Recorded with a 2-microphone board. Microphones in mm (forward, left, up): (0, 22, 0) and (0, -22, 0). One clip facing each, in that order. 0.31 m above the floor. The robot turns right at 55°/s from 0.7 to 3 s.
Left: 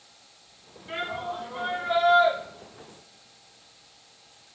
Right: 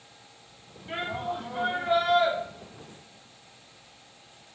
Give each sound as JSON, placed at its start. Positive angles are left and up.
{"t": 0.9, "sound": "a shout", "azimuth_deg": -165, "distance_m": 2.5}